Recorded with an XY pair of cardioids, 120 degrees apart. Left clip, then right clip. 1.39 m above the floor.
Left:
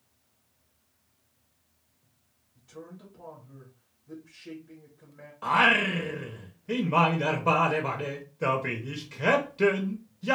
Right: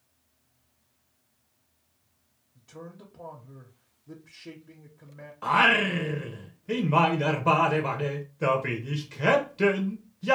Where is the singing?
10° right, 0.6 m.